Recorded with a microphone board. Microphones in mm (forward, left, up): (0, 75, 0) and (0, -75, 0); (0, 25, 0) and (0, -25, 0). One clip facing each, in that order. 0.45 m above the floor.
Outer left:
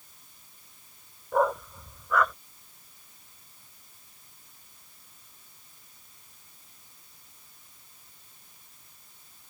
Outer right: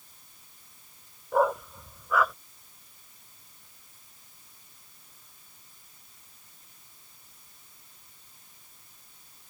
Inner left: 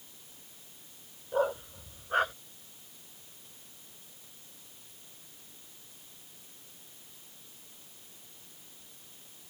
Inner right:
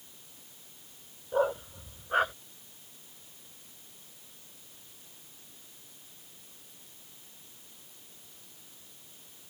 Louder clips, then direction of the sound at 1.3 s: Outer right 1 dB, inner right 1 dB; 5° right (ahead or behind).